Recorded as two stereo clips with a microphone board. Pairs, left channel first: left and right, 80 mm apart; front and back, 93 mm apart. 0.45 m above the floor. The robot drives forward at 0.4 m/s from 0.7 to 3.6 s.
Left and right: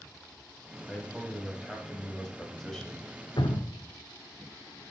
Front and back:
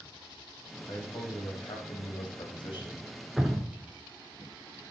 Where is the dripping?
95° left, 1.0 m; by 3.9 s 100° left, 1.0 m.